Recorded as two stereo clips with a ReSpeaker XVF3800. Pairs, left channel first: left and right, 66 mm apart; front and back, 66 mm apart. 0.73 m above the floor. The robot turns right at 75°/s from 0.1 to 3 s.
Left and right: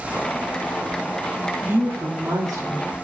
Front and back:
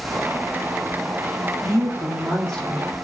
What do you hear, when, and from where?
1.6 s a woman speaking: 150° right, 1.0 m; by 3.0 s 50° right, 1.0 m